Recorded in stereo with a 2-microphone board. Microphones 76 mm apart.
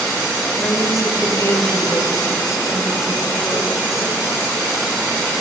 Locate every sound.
0.6 s a woman speaking: 45° left (ahead or behind), 5 m